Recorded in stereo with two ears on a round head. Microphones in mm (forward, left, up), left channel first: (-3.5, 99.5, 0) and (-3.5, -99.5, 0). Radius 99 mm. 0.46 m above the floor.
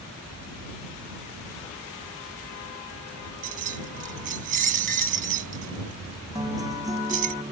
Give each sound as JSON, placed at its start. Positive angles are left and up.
{"t": 3.4, "sound": "keys jangling", "side_deg": -35}
{"t": 6.3, "sound": "a guitar", "side_deg": -15}